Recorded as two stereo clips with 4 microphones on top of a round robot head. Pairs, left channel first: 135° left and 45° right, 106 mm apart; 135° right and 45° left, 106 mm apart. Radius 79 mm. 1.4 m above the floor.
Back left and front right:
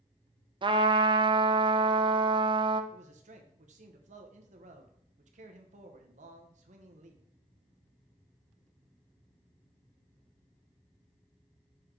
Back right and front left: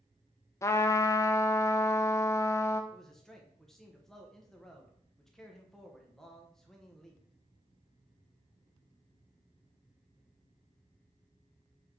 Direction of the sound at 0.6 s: 75° right.